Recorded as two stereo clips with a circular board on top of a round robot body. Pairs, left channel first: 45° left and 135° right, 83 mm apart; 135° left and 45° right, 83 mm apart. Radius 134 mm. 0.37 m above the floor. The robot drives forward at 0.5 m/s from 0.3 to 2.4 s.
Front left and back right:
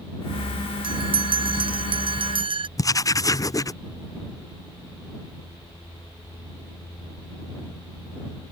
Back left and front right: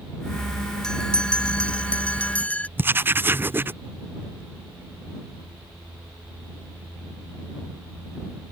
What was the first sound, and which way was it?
A bell, 145° right.